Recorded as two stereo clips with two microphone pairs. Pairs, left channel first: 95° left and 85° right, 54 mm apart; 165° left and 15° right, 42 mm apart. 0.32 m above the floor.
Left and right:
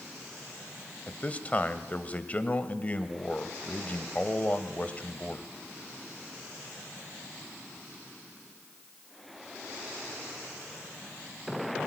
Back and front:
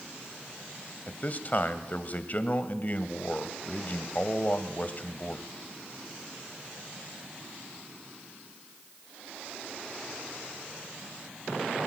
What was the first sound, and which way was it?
A man speaking, 145° left.